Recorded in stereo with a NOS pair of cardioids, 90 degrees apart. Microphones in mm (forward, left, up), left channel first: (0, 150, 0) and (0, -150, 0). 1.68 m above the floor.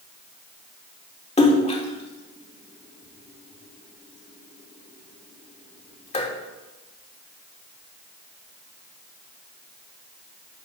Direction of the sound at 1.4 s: 20° left.